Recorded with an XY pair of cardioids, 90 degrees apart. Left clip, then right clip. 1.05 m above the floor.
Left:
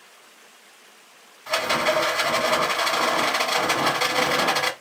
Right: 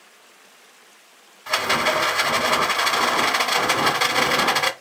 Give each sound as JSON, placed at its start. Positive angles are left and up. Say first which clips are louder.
{"t": 1.5, "sound": "a rattle", "louder": "right 2 dB", "azimuth_deg": -30, "distance_m": 0.9}